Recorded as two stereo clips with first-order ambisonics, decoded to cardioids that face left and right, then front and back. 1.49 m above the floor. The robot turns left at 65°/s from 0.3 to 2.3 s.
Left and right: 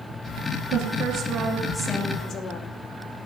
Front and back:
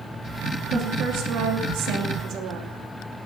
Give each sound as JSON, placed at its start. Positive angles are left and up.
{"t": 0.7, "sound": "a woman speaking", "azimuth_deg": -120, "distance_m": 2.5}